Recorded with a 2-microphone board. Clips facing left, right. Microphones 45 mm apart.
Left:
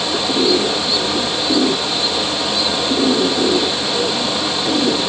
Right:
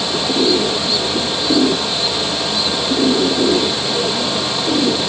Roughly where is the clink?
I don't hear a clink.